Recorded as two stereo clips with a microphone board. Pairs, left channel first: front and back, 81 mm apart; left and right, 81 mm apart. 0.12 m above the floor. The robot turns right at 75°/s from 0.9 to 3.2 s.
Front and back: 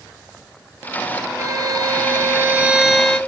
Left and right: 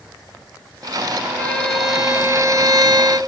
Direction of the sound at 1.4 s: 150° left.